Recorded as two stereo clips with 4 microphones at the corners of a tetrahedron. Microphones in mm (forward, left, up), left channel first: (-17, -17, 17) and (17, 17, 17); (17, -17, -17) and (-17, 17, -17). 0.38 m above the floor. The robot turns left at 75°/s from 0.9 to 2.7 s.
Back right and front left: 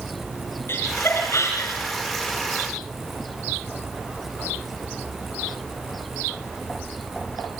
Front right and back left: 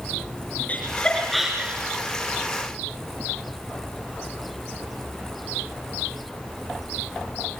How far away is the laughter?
About 4.5 m.